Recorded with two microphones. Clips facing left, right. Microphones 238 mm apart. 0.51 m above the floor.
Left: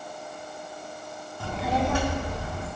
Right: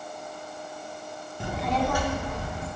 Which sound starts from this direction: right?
A child speaking, at 1.4 s.